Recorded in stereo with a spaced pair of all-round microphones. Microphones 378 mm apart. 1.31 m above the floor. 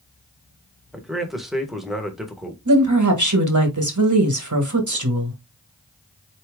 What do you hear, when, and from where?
0.9 s a man speaking: centre (ahead or behind), 1.1 m
2.6 s a woman speaking: 50° right (ahead or behind), 1.4 m